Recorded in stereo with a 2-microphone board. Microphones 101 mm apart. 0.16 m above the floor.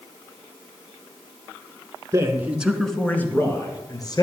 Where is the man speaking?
30° right (ahead or behind), 1.9 m; by 4.2 s 45° left (ahead or behind), 3 m.